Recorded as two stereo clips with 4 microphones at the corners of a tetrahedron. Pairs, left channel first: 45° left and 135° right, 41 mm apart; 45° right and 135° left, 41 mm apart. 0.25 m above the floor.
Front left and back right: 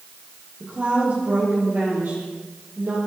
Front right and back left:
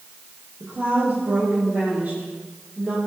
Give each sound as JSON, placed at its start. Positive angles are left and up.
{"t": 0.6, "sound": "a woman speaking", "azimuth_deg": -175, "distance_m": 7.5}